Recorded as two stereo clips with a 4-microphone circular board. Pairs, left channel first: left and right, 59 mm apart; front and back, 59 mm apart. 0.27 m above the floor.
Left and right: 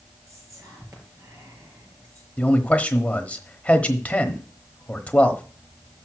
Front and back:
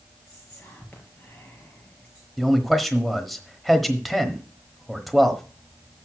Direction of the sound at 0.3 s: 60° right.